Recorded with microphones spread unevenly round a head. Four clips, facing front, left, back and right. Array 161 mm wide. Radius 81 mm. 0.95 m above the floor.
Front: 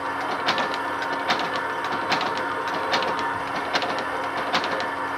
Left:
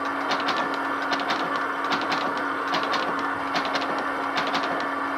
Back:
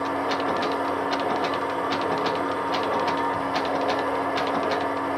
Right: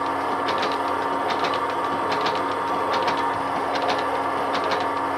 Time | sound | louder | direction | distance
0.0 | a machine running | right 2 dB, back 1 dB | 130° right | 1.5 m